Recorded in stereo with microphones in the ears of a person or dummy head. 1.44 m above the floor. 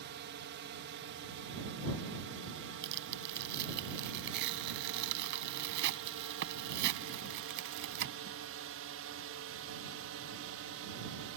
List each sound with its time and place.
0.0 s a drone: 55° right (ahead or behind); by 11.4 s 60° right (ahead or behind)
2.8 s tearing paper: 60° right (ahead or behind)